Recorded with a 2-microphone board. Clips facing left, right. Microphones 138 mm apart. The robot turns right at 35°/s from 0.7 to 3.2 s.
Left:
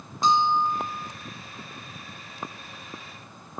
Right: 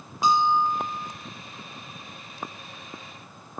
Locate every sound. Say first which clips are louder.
0.2 s a bell: right 1 dB; 10° right (ahead or behind), 0.8 m; by 1.1 s 20° right (ahead or behind), 0.8 m